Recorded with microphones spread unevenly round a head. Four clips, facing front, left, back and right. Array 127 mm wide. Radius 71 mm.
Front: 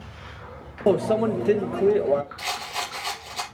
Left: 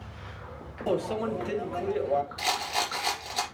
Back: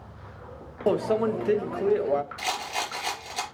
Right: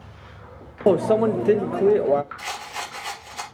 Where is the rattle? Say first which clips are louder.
Left 3 dB, back 1 dB; 130° left, 3.5 m.